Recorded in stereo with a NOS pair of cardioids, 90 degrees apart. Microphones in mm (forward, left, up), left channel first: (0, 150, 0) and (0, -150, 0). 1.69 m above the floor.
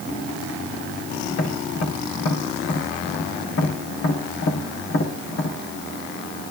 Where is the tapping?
50° left, 7 m.